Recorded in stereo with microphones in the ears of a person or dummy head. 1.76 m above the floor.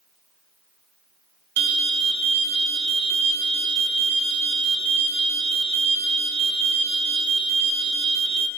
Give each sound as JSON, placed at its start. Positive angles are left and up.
{"t": 1.6, "sound": "an alarm", "side_deg": -55, "distance_m": 1.3}